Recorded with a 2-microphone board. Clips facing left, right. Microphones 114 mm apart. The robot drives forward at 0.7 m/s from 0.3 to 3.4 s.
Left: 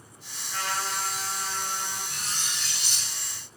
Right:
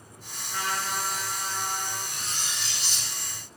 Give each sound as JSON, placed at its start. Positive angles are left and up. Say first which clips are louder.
{"t": 0.5, "sound": "a trumpet", "louder": "right 1 dB", "side_deg": -15, "distance_m": 4.5}
{"t": 2.1, "sound": "cutlery clinking", "louder": "even", "side_deg": 75, "distance_m": 1.2}